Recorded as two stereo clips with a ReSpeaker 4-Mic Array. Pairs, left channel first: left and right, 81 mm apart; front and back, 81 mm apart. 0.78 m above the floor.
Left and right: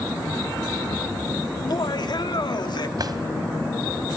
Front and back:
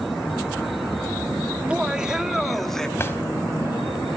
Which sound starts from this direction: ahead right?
A drawer, at 3.0 s.